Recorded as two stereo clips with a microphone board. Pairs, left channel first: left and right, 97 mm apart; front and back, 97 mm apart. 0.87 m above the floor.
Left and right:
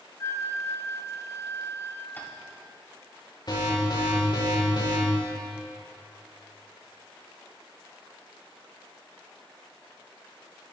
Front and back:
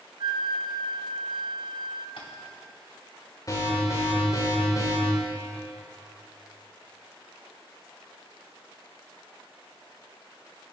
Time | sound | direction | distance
0.2 | a flute | 150° left | 0.6 m
2.2 | tapping | 20° left | 2.5 m
3.5 | an alarm | 50° left | 4 m